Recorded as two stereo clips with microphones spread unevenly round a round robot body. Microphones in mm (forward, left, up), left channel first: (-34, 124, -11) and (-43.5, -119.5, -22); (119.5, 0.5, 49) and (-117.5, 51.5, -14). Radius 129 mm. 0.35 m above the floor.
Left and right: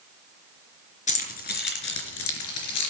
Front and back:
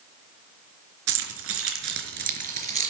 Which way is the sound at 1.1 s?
150° left.